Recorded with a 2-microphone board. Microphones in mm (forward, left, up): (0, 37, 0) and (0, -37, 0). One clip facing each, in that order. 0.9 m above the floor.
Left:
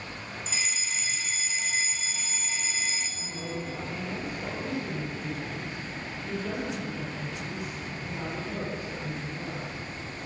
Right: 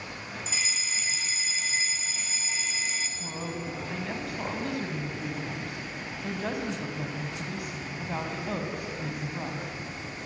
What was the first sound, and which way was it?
A fire alarm, centre (ahead or behind).